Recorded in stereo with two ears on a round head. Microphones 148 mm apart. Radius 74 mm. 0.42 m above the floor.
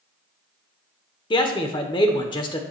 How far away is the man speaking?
About 1.0 m.